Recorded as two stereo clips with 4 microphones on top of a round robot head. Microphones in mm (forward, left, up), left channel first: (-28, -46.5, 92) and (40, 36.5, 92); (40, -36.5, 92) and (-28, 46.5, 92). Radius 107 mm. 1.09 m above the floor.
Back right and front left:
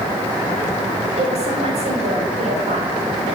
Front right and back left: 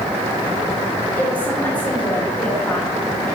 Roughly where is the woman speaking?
Ahead left.